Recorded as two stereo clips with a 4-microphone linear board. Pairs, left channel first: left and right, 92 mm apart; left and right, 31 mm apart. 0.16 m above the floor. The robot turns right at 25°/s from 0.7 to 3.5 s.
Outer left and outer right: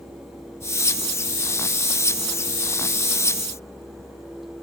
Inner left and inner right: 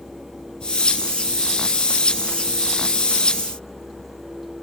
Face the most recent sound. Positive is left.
No sound to turn to.